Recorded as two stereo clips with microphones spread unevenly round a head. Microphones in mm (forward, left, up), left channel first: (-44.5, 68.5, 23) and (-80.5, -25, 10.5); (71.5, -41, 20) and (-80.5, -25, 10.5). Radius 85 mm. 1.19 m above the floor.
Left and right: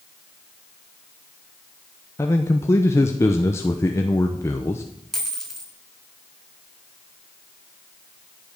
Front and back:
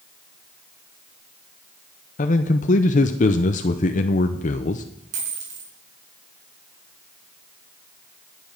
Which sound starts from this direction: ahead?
A man speaking, at 2.2 s.